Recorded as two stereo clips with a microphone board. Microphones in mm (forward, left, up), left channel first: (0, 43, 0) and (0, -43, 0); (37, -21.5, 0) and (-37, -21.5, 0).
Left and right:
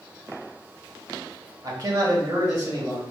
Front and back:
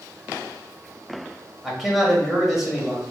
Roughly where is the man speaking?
Right.